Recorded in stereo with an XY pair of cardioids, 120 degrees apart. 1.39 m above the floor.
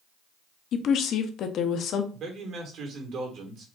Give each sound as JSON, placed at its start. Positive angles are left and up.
{"t": 0.7, "sound": "a woman speaking", "azimuth_deg": 60, "distance_m": 0.7}
{"t": 2.1, "sound": "a man speaking", "azimuth_deg": -60, "distance_m": 1.8}